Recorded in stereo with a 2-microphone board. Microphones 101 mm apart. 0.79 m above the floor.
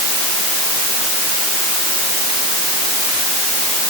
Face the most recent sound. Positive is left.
No sound to turn to.